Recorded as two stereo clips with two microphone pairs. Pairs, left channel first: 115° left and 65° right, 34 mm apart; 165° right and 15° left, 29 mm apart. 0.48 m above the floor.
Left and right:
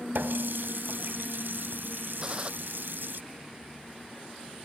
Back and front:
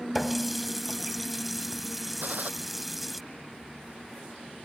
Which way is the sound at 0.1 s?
75° right.